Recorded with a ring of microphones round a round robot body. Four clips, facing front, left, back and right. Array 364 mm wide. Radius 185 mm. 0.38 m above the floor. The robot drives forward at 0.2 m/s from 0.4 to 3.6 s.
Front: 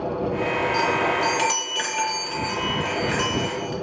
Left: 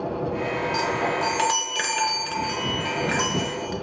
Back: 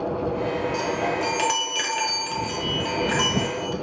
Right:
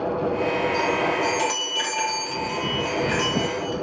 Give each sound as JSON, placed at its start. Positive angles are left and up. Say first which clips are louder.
{"t": 0.7, "sound": "a chime", "louder": "right 2 dB, front 3 dB", "azimuth_deg": 90, "distance_m": 0.8}